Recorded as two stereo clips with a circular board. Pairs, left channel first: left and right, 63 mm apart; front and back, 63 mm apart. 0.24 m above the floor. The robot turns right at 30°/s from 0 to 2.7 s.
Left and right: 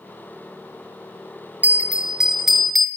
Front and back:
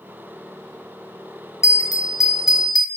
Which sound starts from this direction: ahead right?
A bell, at 1.6 s.